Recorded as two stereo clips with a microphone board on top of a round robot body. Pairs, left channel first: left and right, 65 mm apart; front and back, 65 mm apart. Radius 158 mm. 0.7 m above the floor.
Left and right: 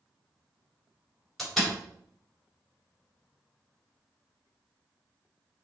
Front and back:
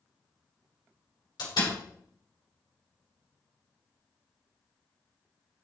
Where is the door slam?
5° left, 3 m.